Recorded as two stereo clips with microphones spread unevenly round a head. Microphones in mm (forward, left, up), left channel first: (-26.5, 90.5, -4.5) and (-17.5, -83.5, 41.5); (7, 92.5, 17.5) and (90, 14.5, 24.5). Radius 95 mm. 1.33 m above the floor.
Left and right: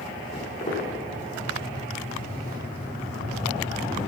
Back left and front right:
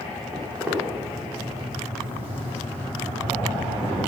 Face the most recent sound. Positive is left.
turn(degrees=20)